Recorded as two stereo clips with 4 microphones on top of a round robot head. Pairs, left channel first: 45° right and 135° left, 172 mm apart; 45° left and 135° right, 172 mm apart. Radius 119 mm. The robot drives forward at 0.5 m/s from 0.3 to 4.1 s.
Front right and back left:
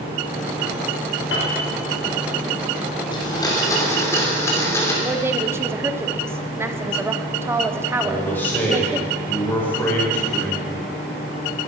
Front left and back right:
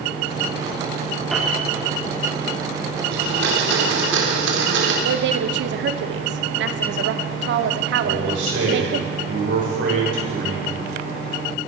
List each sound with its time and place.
1.3 s a piano: 45° right, 3.5 m
3.1 s a blender: 110° right, 3 m; by 4.9 s 120° right, 3 m
5.0 s a woman speaking: 150° right, 1.1 m
8.0 s a man speaking: 125° right, 7 m